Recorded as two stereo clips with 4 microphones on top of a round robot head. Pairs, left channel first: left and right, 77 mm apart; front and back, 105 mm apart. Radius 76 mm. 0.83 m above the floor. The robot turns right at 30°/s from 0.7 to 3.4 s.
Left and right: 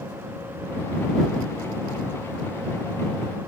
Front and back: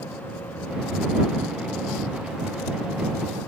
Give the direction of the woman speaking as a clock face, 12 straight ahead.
I don't hear a woman speaking.